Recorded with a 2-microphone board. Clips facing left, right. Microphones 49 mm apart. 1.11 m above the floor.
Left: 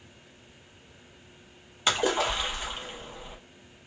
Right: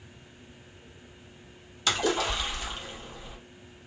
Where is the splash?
25° left (ahead or behind), 0.8 m.